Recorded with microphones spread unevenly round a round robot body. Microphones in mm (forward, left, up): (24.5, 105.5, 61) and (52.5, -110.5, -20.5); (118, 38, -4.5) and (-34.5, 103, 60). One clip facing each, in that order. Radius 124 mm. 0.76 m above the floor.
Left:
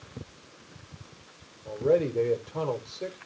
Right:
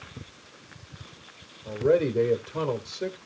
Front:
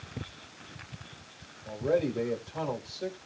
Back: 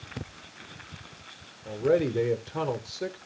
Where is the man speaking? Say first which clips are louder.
Right 2 dB, back 4 dB; 150° right, 2 m.